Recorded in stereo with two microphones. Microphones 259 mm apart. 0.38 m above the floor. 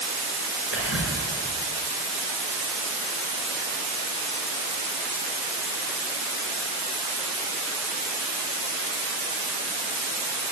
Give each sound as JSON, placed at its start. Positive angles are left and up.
{"t": 0.7, "sound": "whispering", "side_deg": 55, "distance_m": 4.5}